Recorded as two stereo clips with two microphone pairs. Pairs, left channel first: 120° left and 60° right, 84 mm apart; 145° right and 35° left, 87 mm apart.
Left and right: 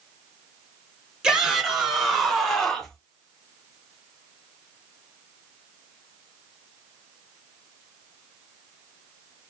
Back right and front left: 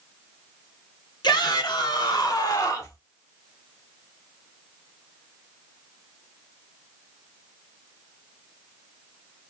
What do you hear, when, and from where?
1.2 s a shout: 135° right, 2.5 m; by 3.0 s 160° right, 1.3 m